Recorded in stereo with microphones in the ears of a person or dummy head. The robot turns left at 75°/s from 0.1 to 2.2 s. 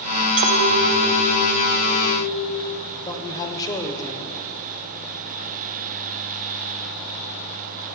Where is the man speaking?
20° left (ahead or behind), 1.2 m.